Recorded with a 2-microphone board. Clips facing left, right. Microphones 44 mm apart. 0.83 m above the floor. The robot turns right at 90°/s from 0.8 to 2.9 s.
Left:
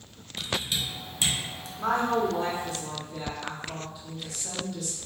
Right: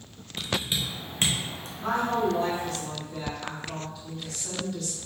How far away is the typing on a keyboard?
About 0.6 m.